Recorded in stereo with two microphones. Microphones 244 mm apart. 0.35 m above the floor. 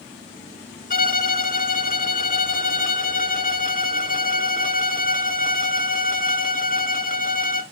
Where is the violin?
35° left (ahead or behind), 0.7 m.